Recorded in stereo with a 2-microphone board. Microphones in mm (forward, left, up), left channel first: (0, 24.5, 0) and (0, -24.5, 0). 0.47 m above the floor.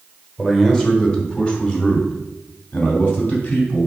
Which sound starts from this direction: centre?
A man speaking, at 0.4 s.